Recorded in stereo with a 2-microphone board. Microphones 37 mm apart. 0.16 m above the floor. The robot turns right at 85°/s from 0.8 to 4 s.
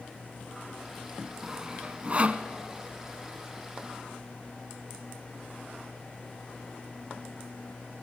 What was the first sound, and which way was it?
Sawing, 10° right (ahead or behind).